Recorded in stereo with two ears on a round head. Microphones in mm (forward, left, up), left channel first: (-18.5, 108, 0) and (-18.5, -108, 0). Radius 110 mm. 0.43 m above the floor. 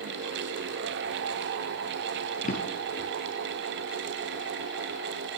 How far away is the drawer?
About 2.0 m.